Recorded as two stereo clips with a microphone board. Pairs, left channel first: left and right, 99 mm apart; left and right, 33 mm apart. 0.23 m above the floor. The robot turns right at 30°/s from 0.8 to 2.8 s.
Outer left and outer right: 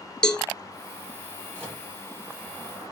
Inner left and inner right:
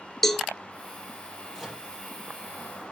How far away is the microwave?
About 4.5 m.